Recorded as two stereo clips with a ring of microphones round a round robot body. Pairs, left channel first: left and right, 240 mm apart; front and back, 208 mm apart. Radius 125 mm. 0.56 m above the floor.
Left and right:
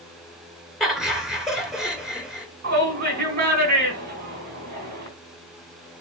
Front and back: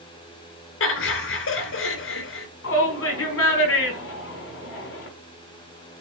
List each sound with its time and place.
0.8 s laughter: straight ahead, 2.5 m
2.6 s a shout: 35° right, 4.5 m